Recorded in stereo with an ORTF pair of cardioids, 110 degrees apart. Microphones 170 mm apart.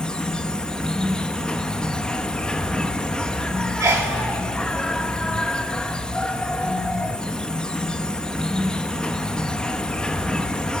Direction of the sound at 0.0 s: 5° left.